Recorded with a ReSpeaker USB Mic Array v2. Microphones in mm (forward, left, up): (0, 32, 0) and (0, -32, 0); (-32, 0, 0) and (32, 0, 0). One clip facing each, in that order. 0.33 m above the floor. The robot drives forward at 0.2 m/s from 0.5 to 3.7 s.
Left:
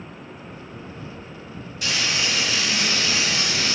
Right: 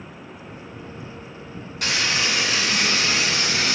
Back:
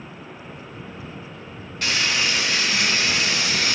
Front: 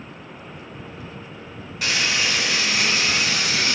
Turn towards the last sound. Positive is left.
turn(degrees=-90)